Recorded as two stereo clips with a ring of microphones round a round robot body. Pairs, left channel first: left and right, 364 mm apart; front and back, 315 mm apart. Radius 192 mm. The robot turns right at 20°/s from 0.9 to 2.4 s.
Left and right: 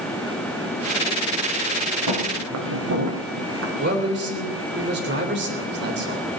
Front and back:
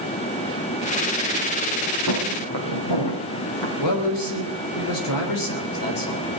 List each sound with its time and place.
2.1 s footsteps: 55° right, 3.5 m; by 3.7 s 30° right, 4.5 m
3.8 s a man speaking: 25° right, 3.5 m